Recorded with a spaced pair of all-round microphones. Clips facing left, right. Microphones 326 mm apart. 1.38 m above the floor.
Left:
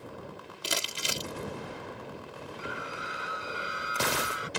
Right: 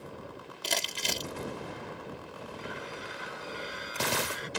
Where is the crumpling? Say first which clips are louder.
Even; 10° left (ahead or behind).